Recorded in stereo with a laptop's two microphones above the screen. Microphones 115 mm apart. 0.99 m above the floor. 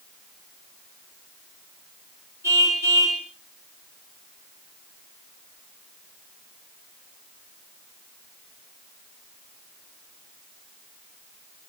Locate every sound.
2.4 s a car horn: 25° right (ahead or behind), 4.5 m